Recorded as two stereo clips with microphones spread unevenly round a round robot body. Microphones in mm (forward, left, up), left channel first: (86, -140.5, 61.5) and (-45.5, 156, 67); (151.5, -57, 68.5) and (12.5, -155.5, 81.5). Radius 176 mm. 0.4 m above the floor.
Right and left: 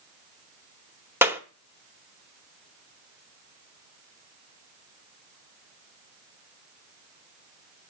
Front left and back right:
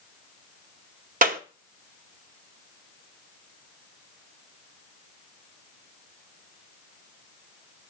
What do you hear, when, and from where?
1.2 s a clap: 165° right, 1.1 m